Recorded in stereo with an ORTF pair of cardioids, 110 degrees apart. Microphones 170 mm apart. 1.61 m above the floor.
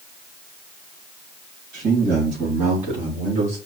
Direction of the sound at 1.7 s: 60° right.